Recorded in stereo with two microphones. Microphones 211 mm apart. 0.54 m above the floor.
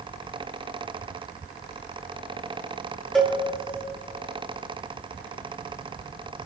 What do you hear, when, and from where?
3.1 s a cowbell: centre (ahead or behind), 2.5 m